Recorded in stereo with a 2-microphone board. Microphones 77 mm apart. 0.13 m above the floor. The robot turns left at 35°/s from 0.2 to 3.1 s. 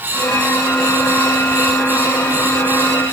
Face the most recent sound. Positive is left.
No sound to turn to.